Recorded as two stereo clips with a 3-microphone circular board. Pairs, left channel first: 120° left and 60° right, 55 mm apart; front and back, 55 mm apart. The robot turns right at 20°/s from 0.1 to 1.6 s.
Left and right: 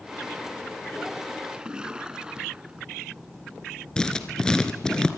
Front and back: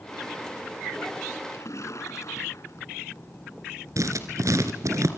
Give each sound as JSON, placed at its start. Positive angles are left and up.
{"t": 1.5, "sound": "a splash", "azimuth_deg": 10, "distance_m": 1.4}
{"t": 4.0, "sound": "writing", "azimuth_deg": -165, "distance_m": 2.0}